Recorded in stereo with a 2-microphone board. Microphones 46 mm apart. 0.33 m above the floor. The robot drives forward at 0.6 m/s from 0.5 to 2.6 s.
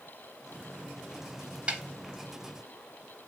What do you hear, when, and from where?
1.7 s a snare drum: 25° right (ahead or behind), 0.8 m; by 1.8 s 30° right (ahead or behind), 0.7 m